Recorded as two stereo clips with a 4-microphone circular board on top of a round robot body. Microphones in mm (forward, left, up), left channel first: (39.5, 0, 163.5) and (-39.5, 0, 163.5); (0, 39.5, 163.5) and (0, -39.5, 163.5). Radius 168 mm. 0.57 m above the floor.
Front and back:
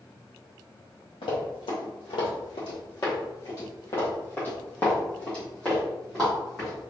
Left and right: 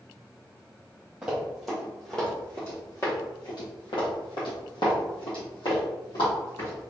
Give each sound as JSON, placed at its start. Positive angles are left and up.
{"t": 1.2, "sound": "running footsteps", "azimuth_deg": -10, "distance_m": 1.5}